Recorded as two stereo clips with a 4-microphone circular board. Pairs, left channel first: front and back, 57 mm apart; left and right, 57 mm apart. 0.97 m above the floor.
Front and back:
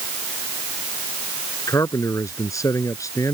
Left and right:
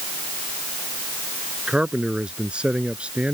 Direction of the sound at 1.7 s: 20° right.